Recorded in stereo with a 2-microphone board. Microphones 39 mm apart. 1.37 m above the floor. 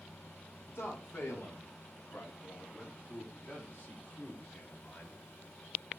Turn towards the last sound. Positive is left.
turn(degrees=45)  # may be behind; listen again after turning